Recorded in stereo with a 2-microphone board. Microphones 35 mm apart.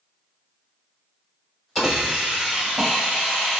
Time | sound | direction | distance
1.8 | a hiss | 20° right (ahead or behind) | 1.2 m